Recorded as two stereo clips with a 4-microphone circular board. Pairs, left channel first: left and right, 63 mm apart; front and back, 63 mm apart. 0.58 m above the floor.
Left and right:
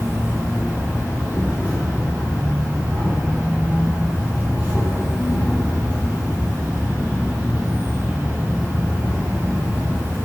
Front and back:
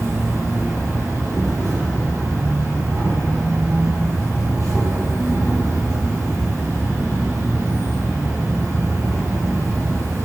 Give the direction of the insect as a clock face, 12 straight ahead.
5 o'clock.